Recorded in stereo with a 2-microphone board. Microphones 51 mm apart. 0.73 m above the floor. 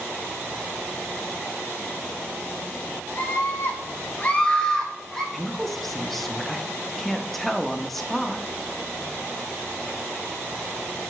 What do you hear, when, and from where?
3.2 s a scream: 40° left (ahead or behind), 1.0 m; by 5.2 s 10° left (ahead or behind), 1.4 m
5.3 s a woman speaking: 5° left (ahead or behind), 0.5 m